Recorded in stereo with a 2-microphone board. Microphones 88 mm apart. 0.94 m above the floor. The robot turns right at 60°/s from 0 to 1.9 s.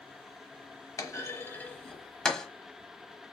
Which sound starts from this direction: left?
A clunk, at 1.0 s.